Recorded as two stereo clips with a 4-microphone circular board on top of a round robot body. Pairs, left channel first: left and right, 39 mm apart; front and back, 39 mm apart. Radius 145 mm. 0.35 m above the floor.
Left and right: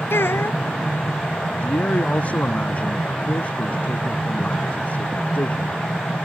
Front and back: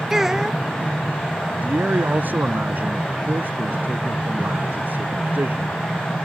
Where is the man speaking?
145° left.